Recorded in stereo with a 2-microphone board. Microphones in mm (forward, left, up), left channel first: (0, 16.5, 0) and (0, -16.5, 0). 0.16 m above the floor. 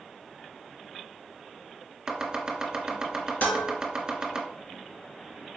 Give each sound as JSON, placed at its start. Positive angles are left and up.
{"t": 2.1, "sound": "chopping", "side_deg": -25, "distance_m": 1.0}
{"t": 3.4, "sound": "dishes clattering", "side_deg": 60, "distance_m": 1.7}